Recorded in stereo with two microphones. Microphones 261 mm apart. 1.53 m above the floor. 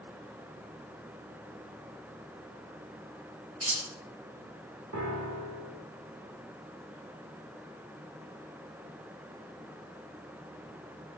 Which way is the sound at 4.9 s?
85° right.